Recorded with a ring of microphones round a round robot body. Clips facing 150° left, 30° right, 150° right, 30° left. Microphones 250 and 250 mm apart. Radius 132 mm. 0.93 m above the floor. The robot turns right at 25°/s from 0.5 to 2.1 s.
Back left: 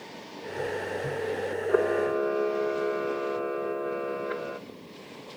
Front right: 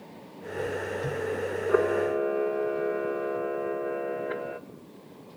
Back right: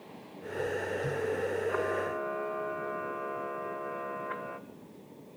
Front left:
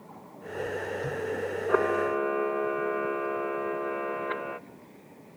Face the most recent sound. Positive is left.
turn(degrees=65)